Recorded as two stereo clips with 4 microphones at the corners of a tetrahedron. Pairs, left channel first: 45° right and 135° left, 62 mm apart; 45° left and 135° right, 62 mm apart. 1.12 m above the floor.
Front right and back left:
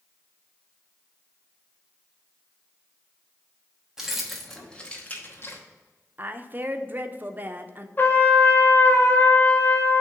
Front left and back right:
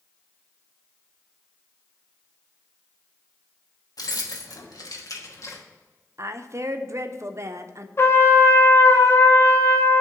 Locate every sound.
4.0 s keys jangling: 55° left, 1.1 m; by 5.6 s 5° left, 1.1 m
6.2 s a woman speaking: 170° right, 0.5 m
8.0 s a trumpet: 5° left, 0.7 m